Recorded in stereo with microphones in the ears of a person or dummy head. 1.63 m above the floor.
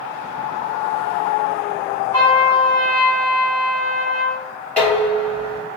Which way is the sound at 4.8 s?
10° left (ahead or behind).